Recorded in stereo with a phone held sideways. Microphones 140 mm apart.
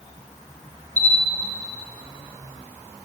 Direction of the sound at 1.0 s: 10° left (ahead or behind).